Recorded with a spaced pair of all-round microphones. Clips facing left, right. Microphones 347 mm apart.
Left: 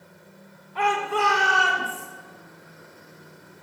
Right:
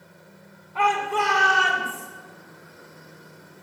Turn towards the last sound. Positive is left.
turn(degrees=0)  # may be behind; listen again after turning